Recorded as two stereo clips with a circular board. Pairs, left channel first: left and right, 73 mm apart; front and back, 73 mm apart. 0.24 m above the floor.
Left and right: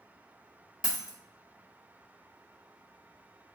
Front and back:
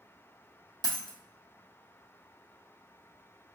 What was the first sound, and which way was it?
A dropped coin, 165° right.